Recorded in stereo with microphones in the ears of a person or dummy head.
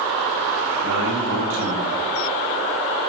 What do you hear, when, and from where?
0.8 s a man speaking: 80° right, 7 m